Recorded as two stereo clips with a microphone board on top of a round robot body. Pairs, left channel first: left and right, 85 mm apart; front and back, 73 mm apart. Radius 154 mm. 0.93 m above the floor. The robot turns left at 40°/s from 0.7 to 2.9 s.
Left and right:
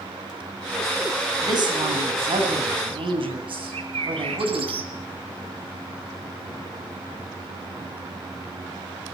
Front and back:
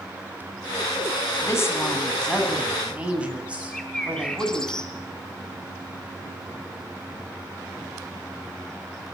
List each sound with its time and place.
1.4 s a woman speaking: 45° right, 9.5 m; by 4.7 s 105° right, 9.5 m
3.7 s a bird: 80° right, 2.5 m